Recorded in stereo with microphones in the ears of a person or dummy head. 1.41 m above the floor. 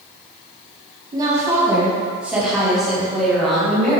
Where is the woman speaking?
20° right (ahead or behind), 1.5 m; by 4.0 s 5° left (ahead or behind), 3 m.